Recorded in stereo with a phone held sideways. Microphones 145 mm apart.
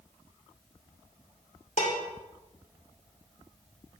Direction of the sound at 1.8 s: 60° left (ahead or behind).